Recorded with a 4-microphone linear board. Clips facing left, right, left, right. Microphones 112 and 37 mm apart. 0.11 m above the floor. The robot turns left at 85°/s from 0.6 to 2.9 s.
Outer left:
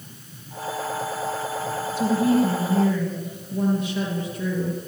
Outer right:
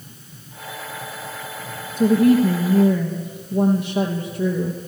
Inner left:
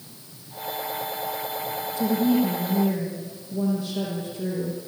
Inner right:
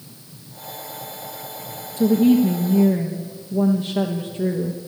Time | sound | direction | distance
2.0 | a woman speaking | 65° right | 3 m